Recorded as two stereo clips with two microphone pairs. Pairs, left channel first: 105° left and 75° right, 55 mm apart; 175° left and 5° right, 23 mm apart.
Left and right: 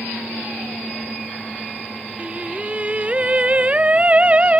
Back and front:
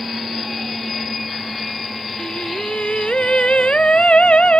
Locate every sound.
2.2 s singing: 145° right